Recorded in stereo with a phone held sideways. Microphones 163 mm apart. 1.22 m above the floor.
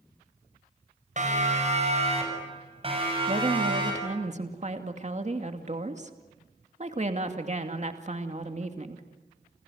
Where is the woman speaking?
45° right (ahead or behind), 2.5 m.